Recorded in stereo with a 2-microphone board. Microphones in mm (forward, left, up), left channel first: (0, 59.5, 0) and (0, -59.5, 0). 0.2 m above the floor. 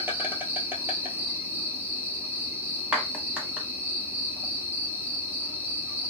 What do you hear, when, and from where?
0.0 s an insect: 15° right (ahead or behind), 0.7 m
2.9 s a clap: 10° right (ahead or behind), 0.9 m